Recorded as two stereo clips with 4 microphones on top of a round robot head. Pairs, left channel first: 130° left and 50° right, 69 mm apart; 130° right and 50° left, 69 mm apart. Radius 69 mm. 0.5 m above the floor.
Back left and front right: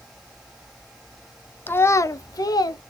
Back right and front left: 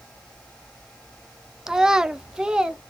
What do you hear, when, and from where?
1.7 s a child speaking: 120° left, 0.5 m; by 2.8 s 125° left, 1.0 m